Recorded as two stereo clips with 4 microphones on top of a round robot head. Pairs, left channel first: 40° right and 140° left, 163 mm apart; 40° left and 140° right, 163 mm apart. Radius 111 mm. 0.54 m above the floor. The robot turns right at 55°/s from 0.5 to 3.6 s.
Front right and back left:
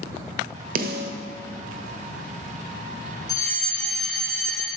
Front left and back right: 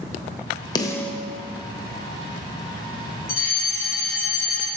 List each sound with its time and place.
0.8 s a snare drum: 105° left, 1.1 m; by 1.1 s 125° left, 1.1 m
3.3 s a fire alarm: 25° left, 3.5 m; by 4.7 s 45° left, 3.5 m